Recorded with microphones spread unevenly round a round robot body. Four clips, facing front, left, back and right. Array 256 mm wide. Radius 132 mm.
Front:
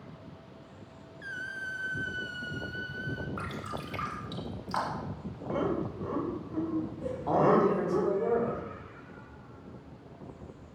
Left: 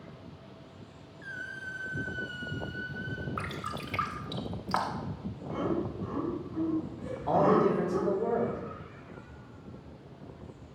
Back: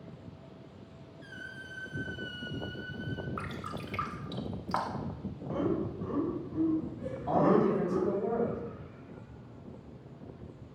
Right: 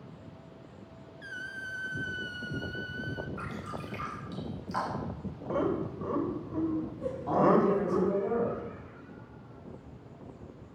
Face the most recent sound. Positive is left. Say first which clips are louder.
# even, front 2 dB
turn(degrees=20)